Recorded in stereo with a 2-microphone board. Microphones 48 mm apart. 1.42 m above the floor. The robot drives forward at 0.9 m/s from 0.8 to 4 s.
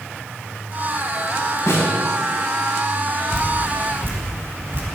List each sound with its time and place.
1.7 s a snare drum: 80° left, 6.5 m
3.3 s dripping: 65° right (ahead or behind), 1.9 m; by 4.8 s 50° right (ahead or behind), 2 m